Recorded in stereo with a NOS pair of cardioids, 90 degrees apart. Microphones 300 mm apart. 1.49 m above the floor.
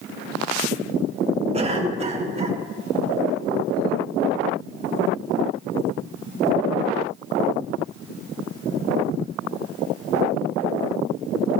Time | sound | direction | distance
1.5 | a cough | 20° right | 3 m